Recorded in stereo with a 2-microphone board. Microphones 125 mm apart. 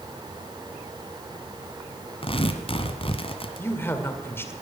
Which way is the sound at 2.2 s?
45° left (ahead or behind).